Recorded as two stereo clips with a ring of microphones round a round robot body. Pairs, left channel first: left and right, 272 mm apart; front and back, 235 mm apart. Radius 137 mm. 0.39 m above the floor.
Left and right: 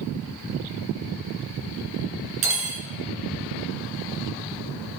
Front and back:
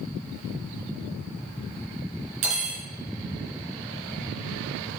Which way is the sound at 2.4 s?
135° right.